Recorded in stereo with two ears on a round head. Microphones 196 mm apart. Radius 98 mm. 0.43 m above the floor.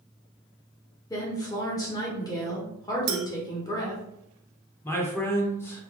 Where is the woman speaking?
15° left (ahead or behind), 1.2 m.